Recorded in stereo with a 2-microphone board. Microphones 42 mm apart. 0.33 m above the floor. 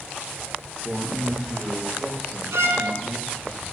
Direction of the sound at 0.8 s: 25° right (ahead or behind).